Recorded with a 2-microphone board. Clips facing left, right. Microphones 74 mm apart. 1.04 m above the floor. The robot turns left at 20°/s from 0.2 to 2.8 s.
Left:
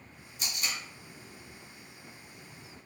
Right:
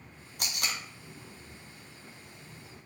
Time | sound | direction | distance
0.4 | tape being pulled | 60° right (ahead or behind) | 0.9 m